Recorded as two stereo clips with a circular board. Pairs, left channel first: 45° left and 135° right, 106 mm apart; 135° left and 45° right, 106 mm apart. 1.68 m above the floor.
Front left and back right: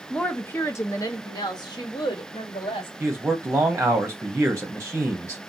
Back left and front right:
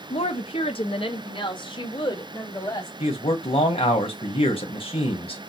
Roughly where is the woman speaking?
Behind left.